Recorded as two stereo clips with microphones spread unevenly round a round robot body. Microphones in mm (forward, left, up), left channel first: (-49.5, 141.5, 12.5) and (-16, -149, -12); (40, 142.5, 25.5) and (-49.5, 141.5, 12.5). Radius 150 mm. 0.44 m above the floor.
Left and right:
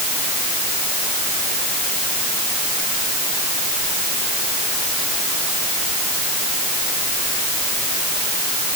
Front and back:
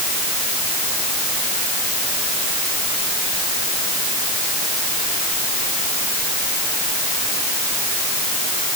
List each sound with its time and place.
Only background noise.